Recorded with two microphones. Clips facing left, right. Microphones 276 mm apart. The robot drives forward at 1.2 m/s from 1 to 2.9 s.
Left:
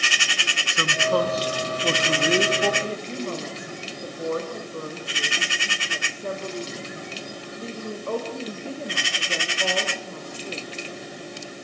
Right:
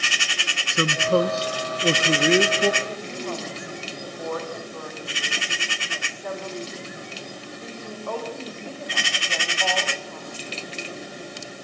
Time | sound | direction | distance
0.7 | a man speaking | 30° right (ahead or behind) | 1.4 m
2.8 | a woman speaking | 35° left (ahead or behind) | 7.5 m